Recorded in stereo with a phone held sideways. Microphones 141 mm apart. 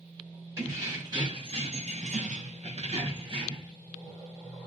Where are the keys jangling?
20° right (ahead or behind), 1.1 m; by 3.7 s 30° right (ahead or behind), 1.1 m.